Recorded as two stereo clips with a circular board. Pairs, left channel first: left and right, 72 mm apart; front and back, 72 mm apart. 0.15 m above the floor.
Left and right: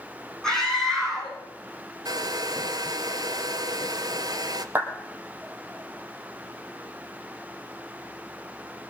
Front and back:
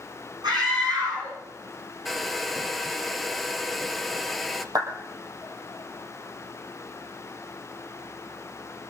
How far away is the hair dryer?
About 1.0 m.